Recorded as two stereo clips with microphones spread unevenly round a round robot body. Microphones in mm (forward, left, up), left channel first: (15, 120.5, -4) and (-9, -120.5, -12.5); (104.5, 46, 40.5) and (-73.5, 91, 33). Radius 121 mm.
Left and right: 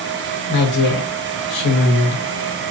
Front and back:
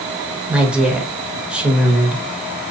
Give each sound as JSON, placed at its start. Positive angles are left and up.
{"t": 0.5, "sound": "a woman speaking", "azimuth_deg": 85, "distance_m": 1.3}